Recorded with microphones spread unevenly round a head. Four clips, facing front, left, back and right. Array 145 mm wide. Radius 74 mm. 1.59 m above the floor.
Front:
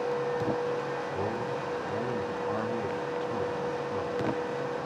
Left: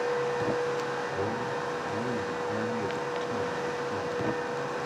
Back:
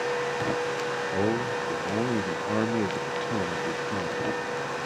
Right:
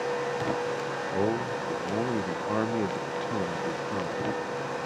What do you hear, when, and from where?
1.1 s a man speaking: 145° right, 1.1 m